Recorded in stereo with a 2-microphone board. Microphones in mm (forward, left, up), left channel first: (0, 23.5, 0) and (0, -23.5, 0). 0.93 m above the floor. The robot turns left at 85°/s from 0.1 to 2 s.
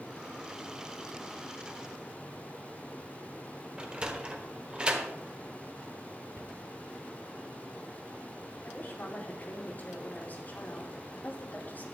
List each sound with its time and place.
3.8 s a sliding door: 20° right (ahead or behind), 1.3 m
6.3 s a cupboard door: 75° right (ahead or behind), 1.4 m
8.6 s a woman speaking: 40° left (ahead or behind), 2.5 m